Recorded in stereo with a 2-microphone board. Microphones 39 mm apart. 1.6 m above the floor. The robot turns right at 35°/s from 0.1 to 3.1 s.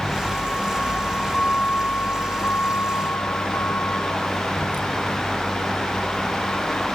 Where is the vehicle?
20° left (ahead or behind); by 7.0 s 45° left (ahead or behind).